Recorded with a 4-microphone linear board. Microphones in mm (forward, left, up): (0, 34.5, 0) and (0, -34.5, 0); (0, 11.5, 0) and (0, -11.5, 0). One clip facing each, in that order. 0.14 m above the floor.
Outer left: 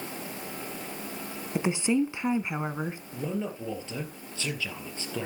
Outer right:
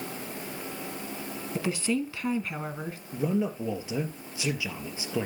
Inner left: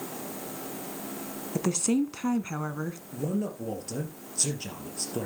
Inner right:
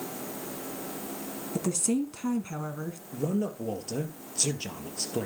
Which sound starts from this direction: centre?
A man speaking, at 3.1 s.